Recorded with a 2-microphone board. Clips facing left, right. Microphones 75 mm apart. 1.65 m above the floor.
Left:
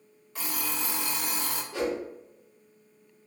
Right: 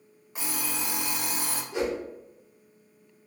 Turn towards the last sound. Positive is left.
turn(degrees=-20)  # may be behind; listen again after turning